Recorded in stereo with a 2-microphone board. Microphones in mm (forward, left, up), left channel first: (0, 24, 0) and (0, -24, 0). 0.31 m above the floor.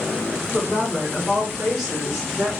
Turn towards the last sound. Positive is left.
turn(degrees=-10)  # may be behind; listen again after turning